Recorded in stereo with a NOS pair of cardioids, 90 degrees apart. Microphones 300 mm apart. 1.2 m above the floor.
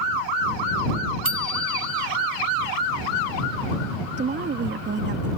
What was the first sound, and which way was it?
A bicycle bell, 45° right.